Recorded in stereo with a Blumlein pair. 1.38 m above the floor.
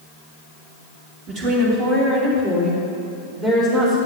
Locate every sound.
1.3 s a woman speaking: 30° right, 2 m; by 4.0 s 20° right, 4 m